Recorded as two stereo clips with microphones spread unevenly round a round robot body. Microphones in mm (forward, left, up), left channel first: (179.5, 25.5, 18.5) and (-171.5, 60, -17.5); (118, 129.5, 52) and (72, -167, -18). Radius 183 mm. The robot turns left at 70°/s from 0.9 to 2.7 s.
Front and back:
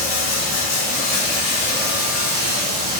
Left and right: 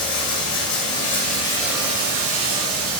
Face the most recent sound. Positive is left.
turn(degrees=-85)